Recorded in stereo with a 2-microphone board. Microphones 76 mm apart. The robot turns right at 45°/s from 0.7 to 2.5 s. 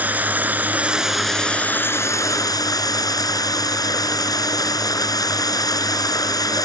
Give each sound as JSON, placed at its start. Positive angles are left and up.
{"t": 0.0, "sound": "running water", "azimuth_deg": -25}